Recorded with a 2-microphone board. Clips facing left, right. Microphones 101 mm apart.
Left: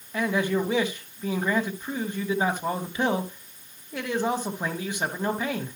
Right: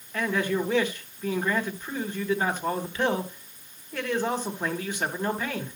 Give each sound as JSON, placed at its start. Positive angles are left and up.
{"t": 0.1, "sound": "a man speaking", "side_deg": 15, "distance_m": 1.2}